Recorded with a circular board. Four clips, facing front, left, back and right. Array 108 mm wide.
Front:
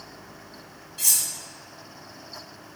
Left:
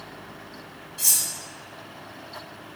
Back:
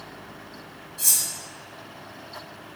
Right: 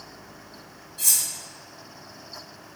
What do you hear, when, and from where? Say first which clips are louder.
1.0 s cutlery clinking: left 1 dB, even; 20° left, 1.1 m